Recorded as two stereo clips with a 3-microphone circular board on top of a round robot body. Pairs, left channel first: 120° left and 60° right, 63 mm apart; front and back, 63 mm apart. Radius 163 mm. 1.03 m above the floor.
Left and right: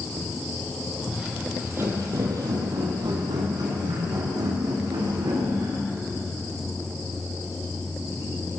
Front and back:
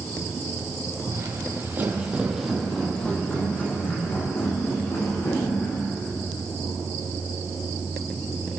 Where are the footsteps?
145° right, 2.5 m; by 5.9 s 40° right, 6 m.